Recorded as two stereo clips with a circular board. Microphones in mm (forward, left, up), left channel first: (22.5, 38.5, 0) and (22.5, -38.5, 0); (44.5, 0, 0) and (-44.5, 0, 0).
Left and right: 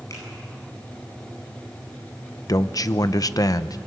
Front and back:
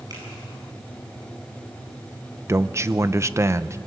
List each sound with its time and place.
0.1 s a finger snap: 135° left, 9.5 m
2.5 s a man speaking: 125° left, 0.7 m